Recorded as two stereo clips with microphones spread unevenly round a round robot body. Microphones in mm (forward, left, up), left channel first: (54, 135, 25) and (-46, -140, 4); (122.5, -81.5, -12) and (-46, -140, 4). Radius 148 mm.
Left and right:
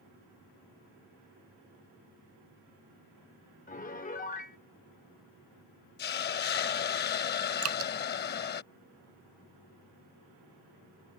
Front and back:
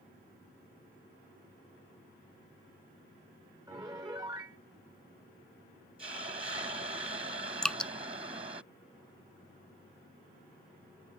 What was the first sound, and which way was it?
A piano, 130° left.